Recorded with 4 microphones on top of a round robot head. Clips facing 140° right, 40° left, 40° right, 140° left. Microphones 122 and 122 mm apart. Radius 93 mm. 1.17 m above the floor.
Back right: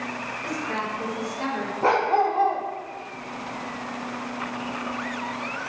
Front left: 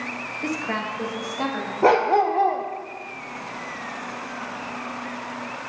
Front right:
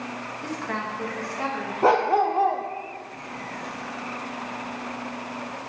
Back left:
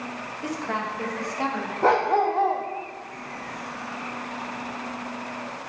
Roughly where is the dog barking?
Ahead left.